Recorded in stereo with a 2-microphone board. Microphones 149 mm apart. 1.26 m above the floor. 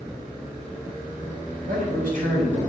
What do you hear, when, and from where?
1.7 s a man speaking: 70° right (ahead or behind), 5 m